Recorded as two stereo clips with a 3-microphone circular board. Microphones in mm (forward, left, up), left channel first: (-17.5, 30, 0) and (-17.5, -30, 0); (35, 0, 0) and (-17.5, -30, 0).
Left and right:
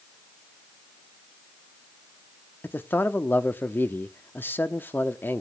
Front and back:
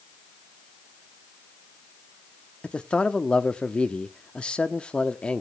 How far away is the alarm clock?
No alarm clock in this recording.